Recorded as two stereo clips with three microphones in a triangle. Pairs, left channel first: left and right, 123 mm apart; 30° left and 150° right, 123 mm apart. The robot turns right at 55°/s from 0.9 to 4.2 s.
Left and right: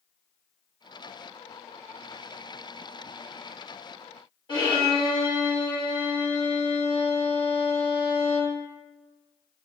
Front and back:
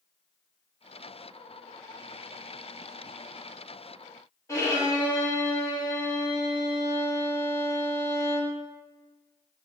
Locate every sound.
4.5 s a violin: 75° left, 1.0 m